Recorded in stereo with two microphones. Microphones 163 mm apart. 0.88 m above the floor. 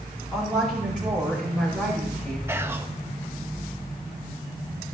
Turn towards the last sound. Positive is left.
turn(degrees=-15)  # may be behind; listen again after turning